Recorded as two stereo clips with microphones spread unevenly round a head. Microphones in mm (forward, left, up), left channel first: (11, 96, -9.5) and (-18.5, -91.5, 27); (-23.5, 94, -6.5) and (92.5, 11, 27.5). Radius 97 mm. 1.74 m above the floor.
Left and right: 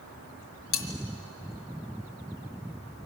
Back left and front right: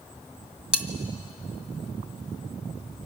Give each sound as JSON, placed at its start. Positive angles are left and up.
{"t": 0.7, "sound": "cutlery clinking", "azimuth_deg": 40, "distance_m": 1.5}